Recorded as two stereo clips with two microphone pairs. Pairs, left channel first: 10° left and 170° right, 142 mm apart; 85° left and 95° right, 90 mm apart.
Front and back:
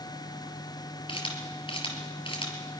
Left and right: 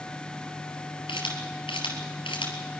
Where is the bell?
I don't hear a bell.